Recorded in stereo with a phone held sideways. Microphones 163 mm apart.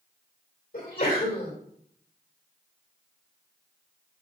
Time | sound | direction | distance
0.7 | a sneeze | 65° left (ahead or behind) | 2.5 m